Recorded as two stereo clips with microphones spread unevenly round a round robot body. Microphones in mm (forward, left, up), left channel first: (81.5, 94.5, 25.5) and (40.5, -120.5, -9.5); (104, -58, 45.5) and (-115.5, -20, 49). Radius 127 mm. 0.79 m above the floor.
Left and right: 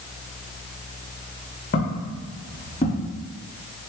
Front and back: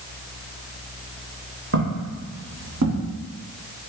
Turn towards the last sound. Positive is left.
turn(degrees=150)